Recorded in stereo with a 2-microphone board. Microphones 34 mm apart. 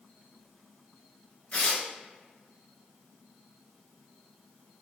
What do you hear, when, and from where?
1.5 s tearing paper: 40° left (ahead or behind), 1.9 m